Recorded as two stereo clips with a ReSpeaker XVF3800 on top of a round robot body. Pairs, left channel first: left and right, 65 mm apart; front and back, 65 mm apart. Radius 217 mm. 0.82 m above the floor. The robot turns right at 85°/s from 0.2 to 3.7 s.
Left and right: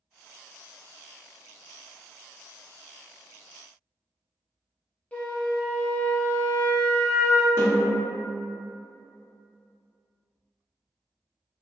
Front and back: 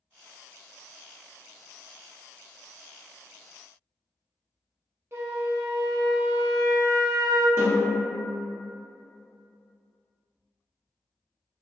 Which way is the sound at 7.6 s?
130° left.